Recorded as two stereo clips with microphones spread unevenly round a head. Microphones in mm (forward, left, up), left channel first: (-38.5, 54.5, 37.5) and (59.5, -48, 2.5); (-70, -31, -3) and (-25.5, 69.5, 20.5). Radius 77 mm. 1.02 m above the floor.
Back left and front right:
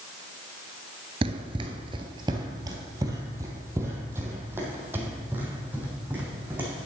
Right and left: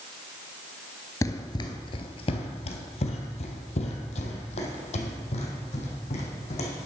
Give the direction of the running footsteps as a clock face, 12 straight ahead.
2 o'clock.